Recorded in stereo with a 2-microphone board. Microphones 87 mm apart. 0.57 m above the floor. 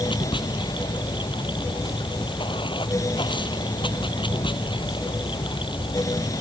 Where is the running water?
70° left (ahead or behind).